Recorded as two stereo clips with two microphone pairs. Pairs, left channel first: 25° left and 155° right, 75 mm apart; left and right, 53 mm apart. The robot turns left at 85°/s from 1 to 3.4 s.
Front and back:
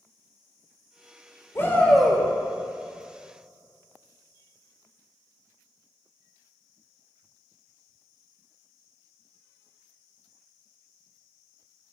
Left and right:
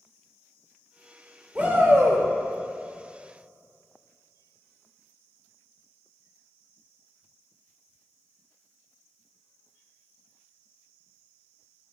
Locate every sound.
1.6 s a shout: 25° right, 1.3 m; by 2.2 s 85° right, 1.3 m